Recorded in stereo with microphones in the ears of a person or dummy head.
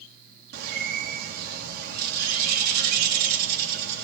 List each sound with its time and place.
0.5 s a bird: 60° right (ahead or behind), 3 m